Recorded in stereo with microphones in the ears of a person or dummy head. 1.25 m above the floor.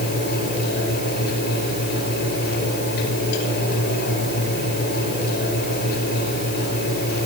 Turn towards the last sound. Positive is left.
turn(degrees=60)  # may be behind; listen again after turning